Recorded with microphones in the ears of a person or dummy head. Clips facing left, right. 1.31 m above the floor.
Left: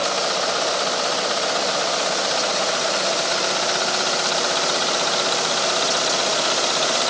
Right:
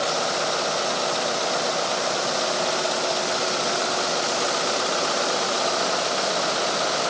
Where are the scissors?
I don't hear scissors.